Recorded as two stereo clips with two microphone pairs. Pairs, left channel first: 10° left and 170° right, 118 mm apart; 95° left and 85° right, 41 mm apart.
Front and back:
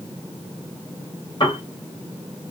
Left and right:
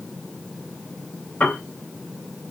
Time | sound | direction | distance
1.4 | a piano | 50° left | 3 m